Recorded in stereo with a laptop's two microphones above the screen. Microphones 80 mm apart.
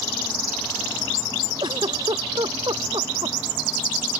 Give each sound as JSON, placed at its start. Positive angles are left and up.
{"t": 1.6, "sound": "a giggle", "side_deg": -65}